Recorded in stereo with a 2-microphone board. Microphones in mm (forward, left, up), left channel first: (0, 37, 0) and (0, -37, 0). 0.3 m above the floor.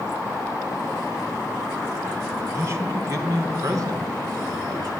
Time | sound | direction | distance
2.4 | a man speaking | 35° right (ahead or behind) | 3 m